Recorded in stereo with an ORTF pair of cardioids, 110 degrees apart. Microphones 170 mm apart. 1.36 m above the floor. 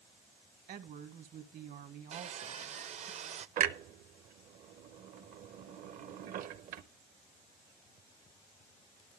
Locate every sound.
0.7 s a woman speaking: 55° right, 1.4 m
2.1 s sawing: 45° right, 0.6 m
3.6 s a clunk: 60° right, 0.9 m